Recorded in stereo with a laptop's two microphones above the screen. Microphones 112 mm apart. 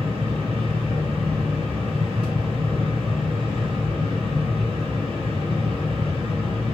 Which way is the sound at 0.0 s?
55° right (ahead or behind).